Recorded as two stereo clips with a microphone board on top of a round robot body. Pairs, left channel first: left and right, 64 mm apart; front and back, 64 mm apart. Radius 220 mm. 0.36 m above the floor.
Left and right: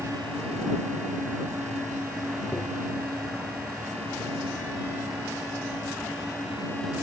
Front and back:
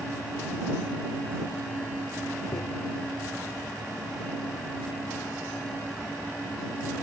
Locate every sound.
2.5 s tapping: 25° left